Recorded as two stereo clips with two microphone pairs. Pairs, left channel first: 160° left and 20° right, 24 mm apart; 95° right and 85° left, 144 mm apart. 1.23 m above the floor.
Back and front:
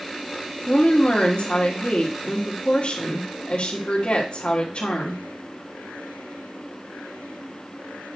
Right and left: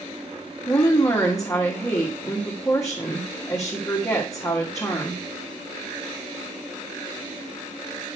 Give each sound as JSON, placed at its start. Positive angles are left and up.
{"t": 0.7, "sound": "a woman speaking", "azimuth_deg": -160, "distance_m": 1.7}